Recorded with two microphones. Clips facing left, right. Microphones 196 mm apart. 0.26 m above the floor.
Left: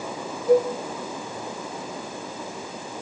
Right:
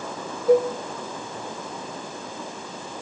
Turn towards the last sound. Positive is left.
turn(degrees=-30)  # may be behind; listen again after turning